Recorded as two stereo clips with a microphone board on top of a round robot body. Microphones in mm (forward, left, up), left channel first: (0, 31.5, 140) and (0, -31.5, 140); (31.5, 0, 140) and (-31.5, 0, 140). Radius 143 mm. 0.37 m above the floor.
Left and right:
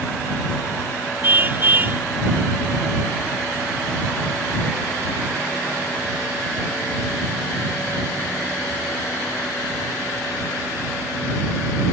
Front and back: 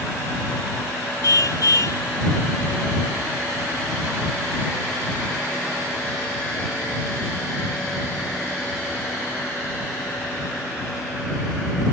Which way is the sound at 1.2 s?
30° right.